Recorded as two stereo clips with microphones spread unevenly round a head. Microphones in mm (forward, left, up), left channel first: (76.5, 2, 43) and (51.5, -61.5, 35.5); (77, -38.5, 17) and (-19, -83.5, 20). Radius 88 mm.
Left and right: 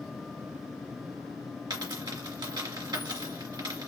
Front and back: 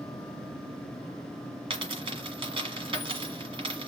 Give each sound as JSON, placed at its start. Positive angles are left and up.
{"t": 1.7, "sound": "a dropped coin", "azimuth_deg": -125, "distance_m": 1.6}